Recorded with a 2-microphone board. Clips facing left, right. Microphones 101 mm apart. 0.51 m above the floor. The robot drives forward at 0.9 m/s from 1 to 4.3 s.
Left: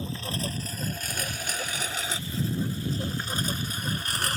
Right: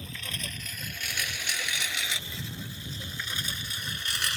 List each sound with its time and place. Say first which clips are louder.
0.0 s a lawn mower: left 8 dB; 30° left (ahead or behind); by 4.4 s 45° left (ahead or behind)